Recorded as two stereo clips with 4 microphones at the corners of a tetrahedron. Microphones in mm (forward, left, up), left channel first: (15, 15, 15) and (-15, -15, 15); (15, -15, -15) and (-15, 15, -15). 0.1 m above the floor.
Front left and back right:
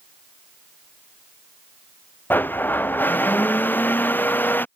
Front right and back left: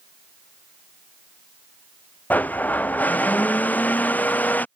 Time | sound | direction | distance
2.3 | a blender | 5° left | ?